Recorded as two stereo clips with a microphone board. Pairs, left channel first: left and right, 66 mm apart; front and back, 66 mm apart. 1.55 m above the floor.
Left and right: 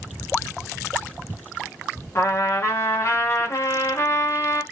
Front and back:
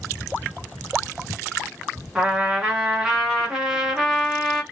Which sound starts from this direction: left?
A trumpet, at 2.1 s.